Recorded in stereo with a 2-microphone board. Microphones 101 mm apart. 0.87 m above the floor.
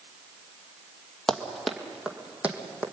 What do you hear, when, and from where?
1.3 s running footsteps: 5° left (ahead or behind), 1.8 m; by 2.8 s 15° right (ahead or behind), 3 m